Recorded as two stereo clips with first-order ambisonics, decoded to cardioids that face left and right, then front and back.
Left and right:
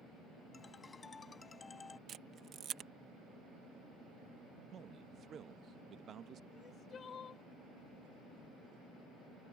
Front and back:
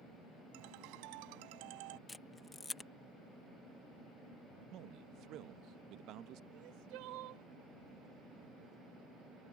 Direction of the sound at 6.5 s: 155° left.